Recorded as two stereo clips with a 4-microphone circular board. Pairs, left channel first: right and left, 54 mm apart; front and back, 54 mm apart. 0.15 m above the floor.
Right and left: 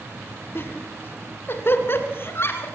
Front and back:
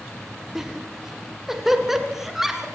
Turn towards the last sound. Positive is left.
turn(degrees=-100)